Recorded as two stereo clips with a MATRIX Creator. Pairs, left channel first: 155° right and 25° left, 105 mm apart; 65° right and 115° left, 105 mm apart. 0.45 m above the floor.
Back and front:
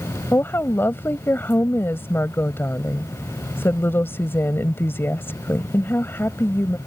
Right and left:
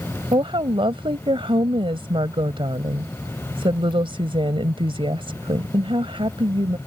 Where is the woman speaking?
135° left.